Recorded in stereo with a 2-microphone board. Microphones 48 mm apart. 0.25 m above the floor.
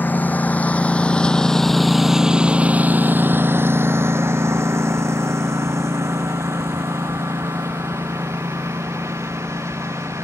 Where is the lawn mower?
40° left (ahead or behind); by 10.2 s 90° right.